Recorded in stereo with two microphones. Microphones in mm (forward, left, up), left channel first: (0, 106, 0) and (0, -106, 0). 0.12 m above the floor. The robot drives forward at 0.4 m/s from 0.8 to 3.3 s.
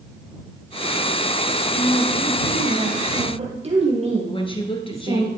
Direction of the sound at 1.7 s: 30° right (ahead or behind).